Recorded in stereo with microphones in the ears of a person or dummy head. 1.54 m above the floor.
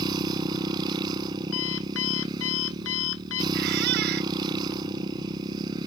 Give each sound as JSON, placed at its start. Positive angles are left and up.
{"t": 0.0, "sound": "a motorcycle", "side_deg": -20}
{"t": 1.5, "sound": "an alarm clock", "side_deg": 80}
{"t": 3.5, "sound": "a squeak", "side_deg": -55}